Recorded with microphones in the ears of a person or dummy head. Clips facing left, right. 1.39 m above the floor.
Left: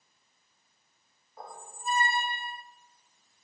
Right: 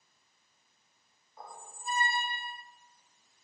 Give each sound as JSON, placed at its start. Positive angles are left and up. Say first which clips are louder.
{"t": 1.4, "sound": "a squeak", "louder": "left 4 dB", "side_deg": 50, "distance_m": 0.6}